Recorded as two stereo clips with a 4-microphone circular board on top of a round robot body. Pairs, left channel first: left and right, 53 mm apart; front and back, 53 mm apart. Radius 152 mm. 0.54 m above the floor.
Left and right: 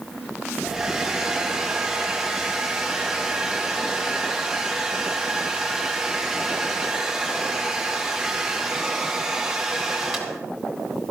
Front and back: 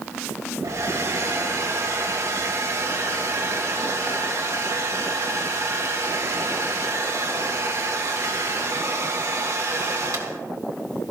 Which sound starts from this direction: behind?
A hair dryer, at 0.6 s.